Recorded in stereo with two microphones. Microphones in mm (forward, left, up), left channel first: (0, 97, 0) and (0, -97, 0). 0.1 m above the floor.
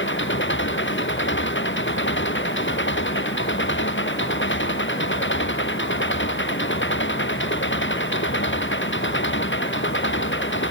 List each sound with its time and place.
0.0 s an engine running: 75° left (ahead or behind)